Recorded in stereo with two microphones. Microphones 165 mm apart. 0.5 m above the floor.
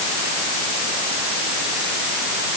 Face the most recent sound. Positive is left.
No sound to turn to.